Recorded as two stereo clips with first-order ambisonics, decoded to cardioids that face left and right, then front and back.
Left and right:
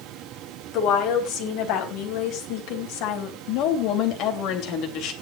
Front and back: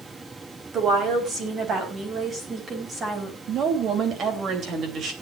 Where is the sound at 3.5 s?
125° left, 3 m.